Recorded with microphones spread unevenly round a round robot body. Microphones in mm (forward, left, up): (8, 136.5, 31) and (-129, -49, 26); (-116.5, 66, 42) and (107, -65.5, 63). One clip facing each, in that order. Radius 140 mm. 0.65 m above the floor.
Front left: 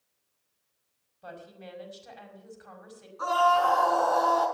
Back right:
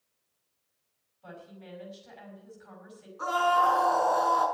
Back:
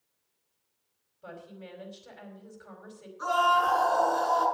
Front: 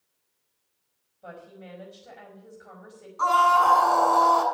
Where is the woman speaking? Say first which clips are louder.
Front left 2 dB, front 1 dB; 75° left, 5.5 m.